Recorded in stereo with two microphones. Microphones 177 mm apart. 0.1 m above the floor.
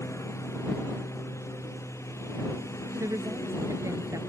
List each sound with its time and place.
0.0 s a lawn mower: 15° left (ahead or behind)
3.0 s a woman speaking: 20° right (ahead or behind)